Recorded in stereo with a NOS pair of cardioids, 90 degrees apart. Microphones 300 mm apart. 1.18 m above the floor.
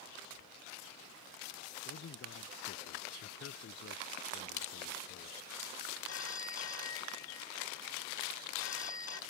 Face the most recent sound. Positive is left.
turn(degrees=55)